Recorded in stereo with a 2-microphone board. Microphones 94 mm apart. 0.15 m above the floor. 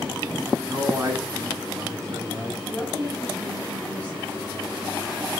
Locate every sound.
0.7 s a man speaking: 30° right (ahead or behind), 1.2 m; by 2.6 s 35° right (ahead or behind), 1.8 m
2.7 s a woman speaking: 15° left (ahead or behind), 1.6 m